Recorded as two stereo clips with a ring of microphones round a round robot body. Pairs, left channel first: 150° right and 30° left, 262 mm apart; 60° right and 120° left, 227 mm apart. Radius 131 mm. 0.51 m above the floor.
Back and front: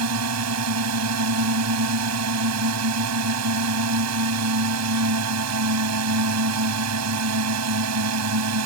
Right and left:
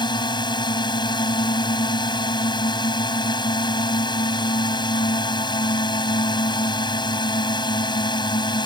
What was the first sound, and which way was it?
A drone, 10° left.